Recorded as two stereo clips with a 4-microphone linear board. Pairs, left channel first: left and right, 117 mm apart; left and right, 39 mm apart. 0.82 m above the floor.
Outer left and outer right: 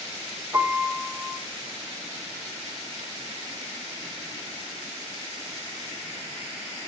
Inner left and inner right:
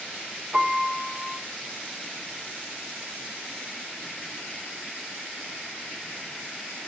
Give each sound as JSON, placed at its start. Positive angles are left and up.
{"t": 0.5, "sound": "a piano", "side_deg": -20, "distance_m": 4.5}